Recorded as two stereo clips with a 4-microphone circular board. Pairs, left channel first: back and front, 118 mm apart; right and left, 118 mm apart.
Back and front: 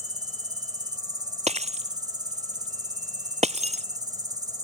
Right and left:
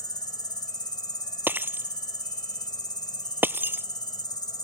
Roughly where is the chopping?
I don't hear chopping.